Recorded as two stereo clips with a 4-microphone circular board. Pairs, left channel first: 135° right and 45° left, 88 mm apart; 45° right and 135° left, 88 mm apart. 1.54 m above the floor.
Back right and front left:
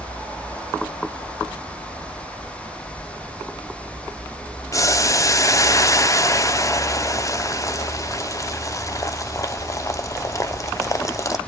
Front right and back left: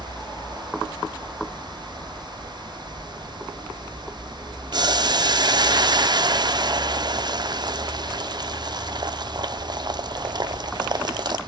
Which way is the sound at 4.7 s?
170° left.